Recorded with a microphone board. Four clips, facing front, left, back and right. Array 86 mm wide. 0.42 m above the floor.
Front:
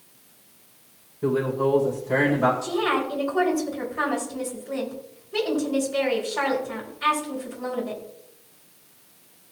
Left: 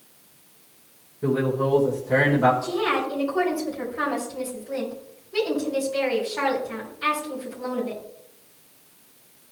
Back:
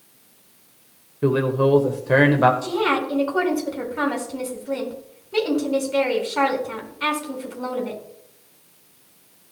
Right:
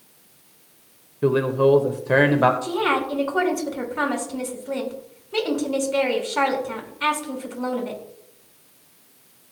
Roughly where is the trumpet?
No trumpet in this recording.